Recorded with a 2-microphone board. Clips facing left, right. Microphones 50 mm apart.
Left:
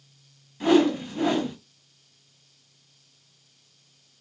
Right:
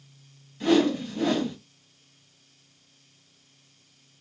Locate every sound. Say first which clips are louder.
0.6 s a whoosh: left 2 dB; 20° left (ahead or behind), 1.2 m